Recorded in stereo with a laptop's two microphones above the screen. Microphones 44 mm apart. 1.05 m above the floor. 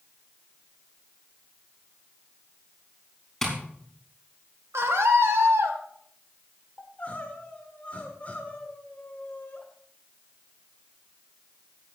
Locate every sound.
3.4 s tapping: 5° left (ahead or behind), 4.5 m
4.7 s a scream: 75° right (ahead or behind), 2 m
6.8 s crying: 35° left (ahead or behind), 1.5 m